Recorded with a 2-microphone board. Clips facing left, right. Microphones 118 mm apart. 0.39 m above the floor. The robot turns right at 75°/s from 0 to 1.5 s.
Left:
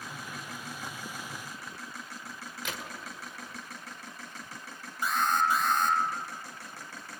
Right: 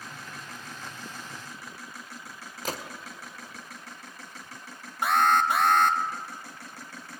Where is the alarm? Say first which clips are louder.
Right 5 dB; 65° right (ahead or behind), 1.1 m.